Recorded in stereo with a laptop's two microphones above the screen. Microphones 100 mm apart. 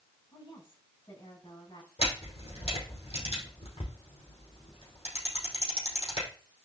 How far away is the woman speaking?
About 6.5 m.